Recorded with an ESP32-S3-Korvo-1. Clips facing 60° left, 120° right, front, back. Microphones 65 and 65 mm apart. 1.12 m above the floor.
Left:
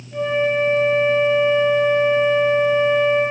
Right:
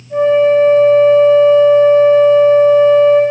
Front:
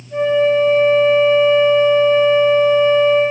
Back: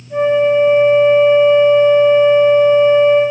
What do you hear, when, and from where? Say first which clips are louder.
0.1 s a flute: right 10 dB, back 2 dB; 120° right, 1.6 m